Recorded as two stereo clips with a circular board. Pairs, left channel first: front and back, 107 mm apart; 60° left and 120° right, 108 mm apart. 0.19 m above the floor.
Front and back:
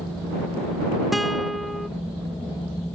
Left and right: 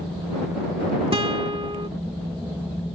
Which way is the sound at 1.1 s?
90° right.